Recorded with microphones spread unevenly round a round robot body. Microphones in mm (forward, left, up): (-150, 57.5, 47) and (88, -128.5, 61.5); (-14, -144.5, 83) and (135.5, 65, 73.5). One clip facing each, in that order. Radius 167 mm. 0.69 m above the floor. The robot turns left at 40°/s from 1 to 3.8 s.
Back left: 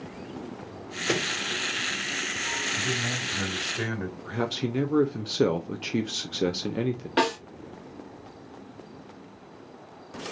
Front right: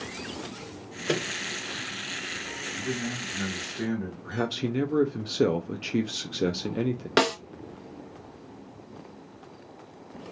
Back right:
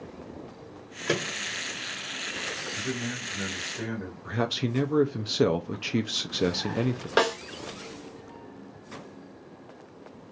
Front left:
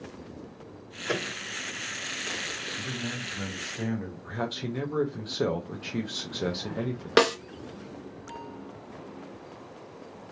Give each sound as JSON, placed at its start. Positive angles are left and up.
{"t": 1.1, "sound": "a microwave", "azimuth_deg": -135, "distance_m": 1.1}
{"t": 2.8, "sound": "a man speaking", "azimuth_deg": -170, "distance_m": 1.5}
{"t": 4.2, "sound": "a man speaking", "azimuth_deg": -135, "distance_m": 0.6}
{"t": 7.2, "sound": "a snare drum", "azimuth_deg": -5, "distance_m": 0.8}